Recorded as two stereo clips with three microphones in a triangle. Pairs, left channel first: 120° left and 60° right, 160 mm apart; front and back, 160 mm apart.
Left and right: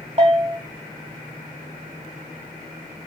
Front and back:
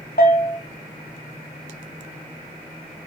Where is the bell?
15° right, 3 m.